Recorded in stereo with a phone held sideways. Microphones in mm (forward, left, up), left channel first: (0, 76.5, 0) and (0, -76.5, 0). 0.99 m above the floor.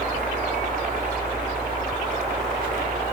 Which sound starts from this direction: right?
A helicopter, at 0.0 s.